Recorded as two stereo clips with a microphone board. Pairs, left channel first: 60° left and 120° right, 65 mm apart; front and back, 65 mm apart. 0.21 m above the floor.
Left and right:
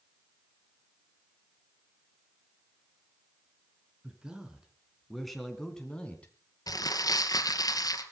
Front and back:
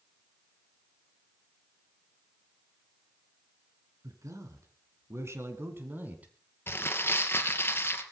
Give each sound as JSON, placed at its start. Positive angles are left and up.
{"t": 4.0, "sound": "a man speaking", "azimuth_deg": 165, "distance_m": 3.5}
{"t": 6.7, "sound": "crumpling", "azimuth_deg": 50, "distance_m": 2.5}